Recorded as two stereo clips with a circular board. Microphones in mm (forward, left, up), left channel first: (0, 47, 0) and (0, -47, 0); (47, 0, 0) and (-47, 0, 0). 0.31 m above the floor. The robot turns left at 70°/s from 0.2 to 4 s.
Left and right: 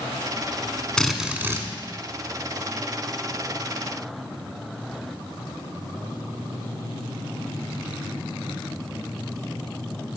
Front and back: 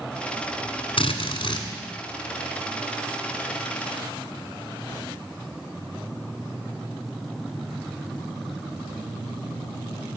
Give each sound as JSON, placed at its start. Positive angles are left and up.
{"t": 1.0, "sound": "a drill", "azimuth_deg": 5, "distance_m": 1.3}